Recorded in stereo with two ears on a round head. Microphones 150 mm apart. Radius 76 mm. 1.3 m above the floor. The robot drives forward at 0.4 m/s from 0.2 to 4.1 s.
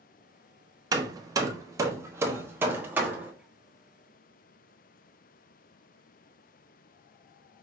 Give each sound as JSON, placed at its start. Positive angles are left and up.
{"t": 0.9, "sound": "hammering", "side_deg": -25, "distance_m": 0.6}